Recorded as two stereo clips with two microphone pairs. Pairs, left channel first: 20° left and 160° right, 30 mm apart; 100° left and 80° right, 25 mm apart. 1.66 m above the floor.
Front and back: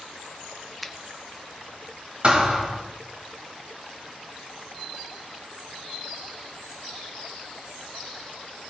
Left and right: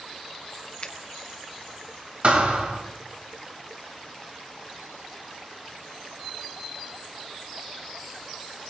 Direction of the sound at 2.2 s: 115° right.